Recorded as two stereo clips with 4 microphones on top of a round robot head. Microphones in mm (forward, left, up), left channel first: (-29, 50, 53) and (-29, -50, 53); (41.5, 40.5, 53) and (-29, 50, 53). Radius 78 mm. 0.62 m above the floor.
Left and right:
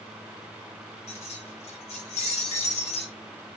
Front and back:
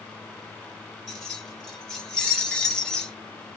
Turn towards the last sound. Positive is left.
turn(degrees=70)